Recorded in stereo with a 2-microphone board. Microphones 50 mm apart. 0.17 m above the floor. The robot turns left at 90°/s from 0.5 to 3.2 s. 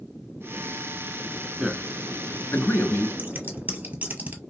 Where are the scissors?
35° right (ahead or behind), 0.9 m.